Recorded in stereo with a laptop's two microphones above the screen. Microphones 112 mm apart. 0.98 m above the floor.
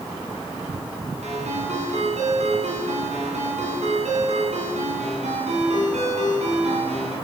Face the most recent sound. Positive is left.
turn(degrees=-80)